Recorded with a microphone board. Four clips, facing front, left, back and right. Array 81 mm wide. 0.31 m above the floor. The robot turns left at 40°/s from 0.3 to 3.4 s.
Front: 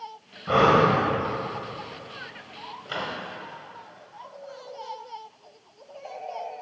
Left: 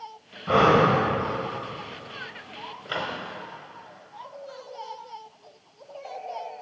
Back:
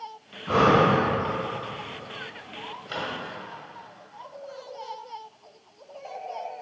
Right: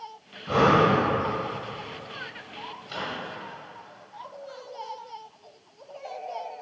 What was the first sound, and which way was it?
Breathing, 60° left.